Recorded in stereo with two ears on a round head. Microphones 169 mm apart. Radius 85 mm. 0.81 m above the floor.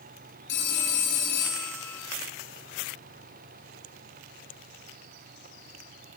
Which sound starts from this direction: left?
A phone ringing, at 0.5 s.